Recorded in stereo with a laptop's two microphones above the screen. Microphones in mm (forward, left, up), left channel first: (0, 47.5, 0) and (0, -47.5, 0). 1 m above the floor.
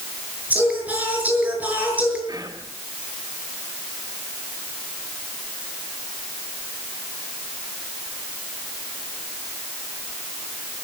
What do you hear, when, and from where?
0.5 s singing: 15° right (ahead or behind), 6 m
2.3 s whispering: 50° right (ahead or behind), 8 m